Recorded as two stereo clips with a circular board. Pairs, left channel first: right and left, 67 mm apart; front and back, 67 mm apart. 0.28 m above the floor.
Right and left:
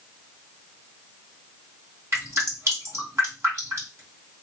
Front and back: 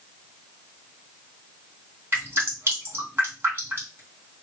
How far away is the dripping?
About 2.5 m.